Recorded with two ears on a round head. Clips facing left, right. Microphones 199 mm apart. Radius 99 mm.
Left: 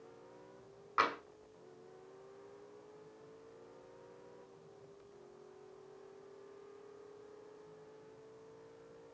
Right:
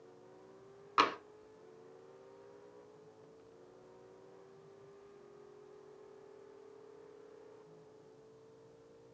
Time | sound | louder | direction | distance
1.0 | tapping | right 3 dB | 45° right (ahead or behind) | 1.2 m